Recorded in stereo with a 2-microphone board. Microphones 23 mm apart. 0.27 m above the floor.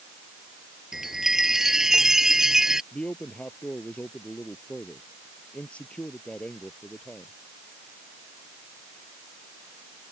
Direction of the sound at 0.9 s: 15° right (ahead or behind).